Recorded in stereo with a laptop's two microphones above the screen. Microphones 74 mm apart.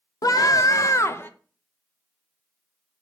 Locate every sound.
0.2 s a scream: 55° left (ahead or behind), 1.0 m; by 1.3 s 30° left (ahead or behind), 0.8 m